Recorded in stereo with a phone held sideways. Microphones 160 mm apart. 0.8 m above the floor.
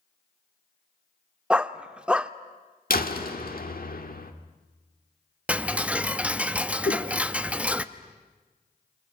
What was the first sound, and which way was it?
A dog barking, 5° right (ahead or behind).